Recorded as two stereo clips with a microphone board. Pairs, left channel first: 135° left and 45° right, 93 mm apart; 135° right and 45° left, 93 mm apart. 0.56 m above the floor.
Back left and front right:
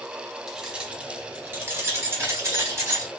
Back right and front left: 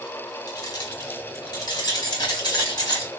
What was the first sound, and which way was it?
Keys jangling, 130° right.